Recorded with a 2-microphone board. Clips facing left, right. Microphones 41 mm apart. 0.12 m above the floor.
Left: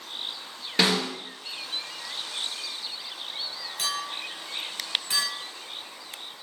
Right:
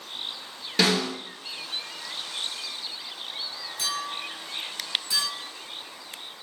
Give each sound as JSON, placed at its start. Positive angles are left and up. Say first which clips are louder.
{"t": 0.8, "sound": "a snare drum", "louder": "right 1 dB", "side_deg": 15, "distance_m": 1.3}
{"t": 3.8, "sound": "a clink", "louder": "even", "side_deg": 50, "distance_m": 1.4}